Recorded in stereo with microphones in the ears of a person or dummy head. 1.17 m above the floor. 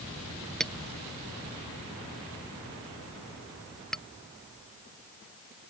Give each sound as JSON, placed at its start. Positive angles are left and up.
{"t": 0.6, "sound": "a clink", "side_deg": 0}